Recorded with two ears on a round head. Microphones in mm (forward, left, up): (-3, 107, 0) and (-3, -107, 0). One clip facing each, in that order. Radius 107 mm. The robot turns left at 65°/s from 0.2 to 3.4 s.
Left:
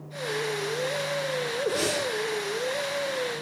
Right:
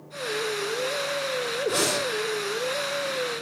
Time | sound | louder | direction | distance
1.7 | breathing | right 1 dB | 65° right (ahead or behind) | 6 m